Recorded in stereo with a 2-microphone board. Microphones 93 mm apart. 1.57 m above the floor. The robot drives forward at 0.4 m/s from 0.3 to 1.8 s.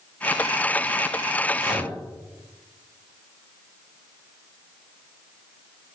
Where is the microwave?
55° right (ahead or behind), 1.8 m; by 1.9 s 50° right (ahead or behind), 1.8 m.